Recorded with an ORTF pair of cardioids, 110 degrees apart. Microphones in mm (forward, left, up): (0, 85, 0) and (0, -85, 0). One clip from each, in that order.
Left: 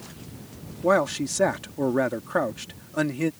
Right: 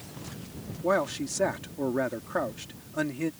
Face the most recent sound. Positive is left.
turn(degrees=30)